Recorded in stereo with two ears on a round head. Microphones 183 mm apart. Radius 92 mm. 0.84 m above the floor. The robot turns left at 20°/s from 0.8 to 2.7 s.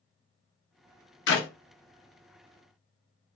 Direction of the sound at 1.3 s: 60° left (ahead or behind).